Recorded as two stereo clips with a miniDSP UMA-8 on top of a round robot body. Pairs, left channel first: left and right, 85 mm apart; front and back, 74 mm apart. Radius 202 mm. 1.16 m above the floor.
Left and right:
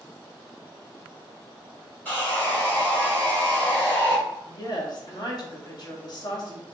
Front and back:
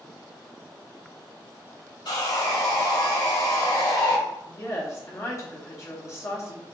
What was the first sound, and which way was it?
Sawing, 25° left.